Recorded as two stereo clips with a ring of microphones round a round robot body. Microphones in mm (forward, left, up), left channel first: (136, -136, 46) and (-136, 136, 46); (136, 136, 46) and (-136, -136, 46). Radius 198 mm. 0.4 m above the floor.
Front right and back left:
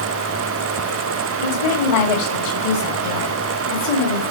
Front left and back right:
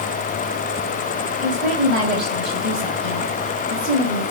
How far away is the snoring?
I don't hear snoring.